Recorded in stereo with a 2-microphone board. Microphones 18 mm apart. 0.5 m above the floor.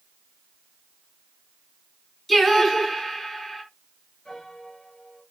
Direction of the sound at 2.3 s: 10° left (ahead or behind).